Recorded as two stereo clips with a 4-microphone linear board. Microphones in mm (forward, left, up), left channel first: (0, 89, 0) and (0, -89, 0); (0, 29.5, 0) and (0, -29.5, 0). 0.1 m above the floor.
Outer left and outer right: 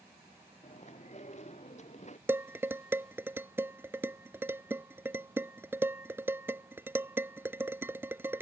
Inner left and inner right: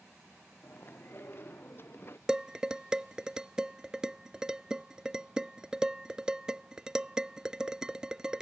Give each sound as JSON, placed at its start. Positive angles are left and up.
{"t": 0.6, "sound": "chewing", "side_deg": 40}
{"t": 2.3, "sound": "dishes clattering", "side_deg": -15}